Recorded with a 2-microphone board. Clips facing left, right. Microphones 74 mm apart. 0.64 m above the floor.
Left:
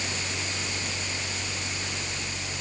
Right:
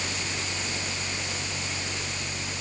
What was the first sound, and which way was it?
Only background noise.